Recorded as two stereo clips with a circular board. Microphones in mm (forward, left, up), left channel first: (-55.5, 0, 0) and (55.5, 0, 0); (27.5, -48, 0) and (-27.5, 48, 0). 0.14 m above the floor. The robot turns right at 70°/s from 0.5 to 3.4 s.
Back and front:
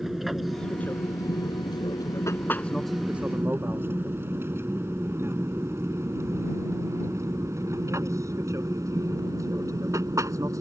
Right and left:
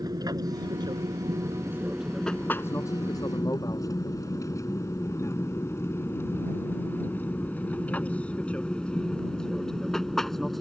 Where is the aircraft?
85° left; by 10.6 s 30° left.